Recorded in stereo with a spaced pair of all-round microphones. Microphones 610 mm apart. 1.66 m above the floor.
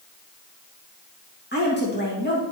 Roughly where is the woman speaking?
Centre.